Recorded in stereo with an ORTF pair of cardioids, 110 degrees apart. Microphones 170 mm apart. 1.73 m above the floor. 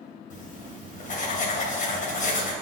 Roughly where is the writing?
Ahead left.